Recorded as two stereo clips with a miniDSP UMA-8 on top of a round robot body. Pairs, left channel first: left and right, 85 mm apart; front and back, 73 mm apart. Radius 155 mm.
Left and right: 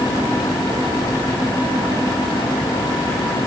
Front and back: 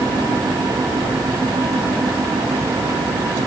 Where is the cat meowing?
I don't hear a cat meowing.